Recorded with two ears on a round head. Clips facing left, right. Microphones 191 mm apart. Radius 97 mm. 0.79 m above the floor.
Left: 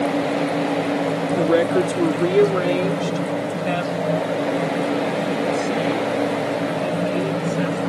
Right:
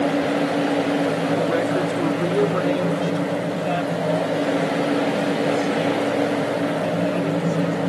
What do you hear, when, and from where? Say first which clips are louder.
1.4 s a woman speaking: left 3 dB; 50° left (ahead or behind); by 7.8 s 15° left (ahead or behind)